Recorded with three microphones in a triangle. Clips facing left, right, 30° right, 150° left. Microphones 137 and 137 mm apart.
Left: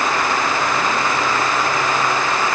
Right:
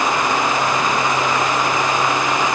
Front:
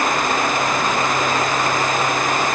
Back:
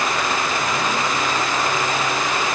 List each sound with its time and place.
Only background noise.